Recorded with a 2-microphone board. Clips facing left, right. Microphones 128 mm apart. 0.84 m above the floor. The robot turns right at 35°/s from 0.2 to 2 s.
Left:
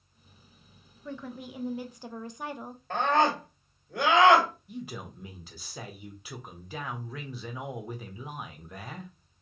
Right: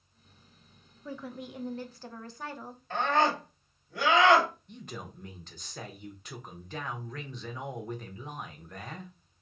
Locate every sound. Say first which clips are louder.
1.1 s a woman speaking: left 1 dB; 10° right, 0.5 m; by 2.8 s 25° left, 0.5 m
2.9 s a scream: left 2 dB; 55° left (ahead or behind), 1.9 m
4.7 s a man speaking: left 4 dB; 5° left (ahead or behind), 0.8 m